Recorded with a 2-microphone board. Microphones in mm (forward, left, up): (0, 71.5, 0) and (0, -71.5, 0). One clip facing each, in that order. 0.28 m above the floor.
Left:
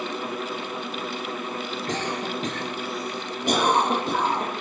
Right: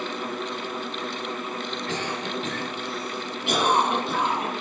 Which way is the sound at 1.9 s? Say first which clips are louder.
Left 3 dB; 40° left (ahead or behind).